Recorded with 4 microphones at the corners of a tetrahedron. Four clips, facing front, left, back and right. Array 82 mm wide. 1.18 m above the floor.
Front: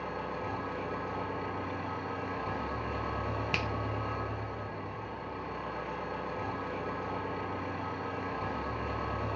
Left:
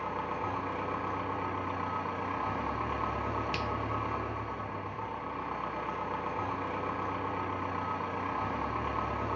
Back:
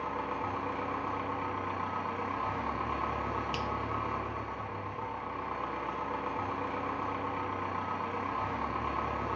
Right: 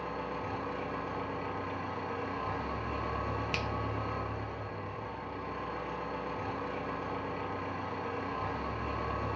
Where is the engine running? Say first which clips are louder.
Left 3 dB, back 2 dB; 135° left, 9 m.